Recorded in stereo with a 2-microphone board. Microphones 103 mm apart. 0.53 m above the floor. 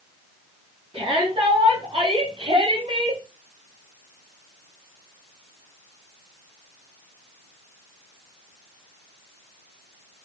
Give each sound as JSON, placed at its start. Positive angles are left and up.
{"t": 0.9, "sound": "a shout", "side_deg": -60, "distance_m": 5.0}